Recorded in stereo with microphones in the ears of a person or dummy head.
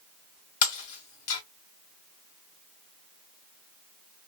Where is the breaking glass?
45° left (ahead or behind), 1.2 m.